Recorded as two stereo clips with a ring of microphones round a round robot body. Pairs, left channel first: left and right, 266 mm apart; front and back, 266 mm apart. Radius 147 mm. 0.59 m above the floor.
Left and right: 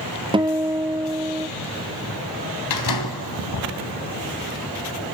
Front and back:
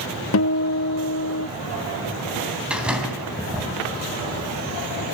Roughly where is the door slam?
Left.